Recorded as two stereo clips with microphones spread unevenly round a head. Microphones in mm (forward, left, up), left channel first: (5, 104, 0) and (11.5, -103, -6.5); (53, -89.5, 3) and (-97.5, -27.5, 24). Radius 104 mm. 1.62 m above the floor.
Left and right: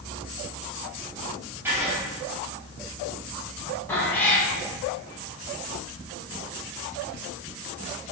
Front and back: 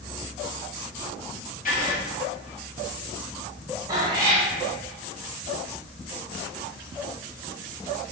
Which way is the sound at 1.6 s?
10° right.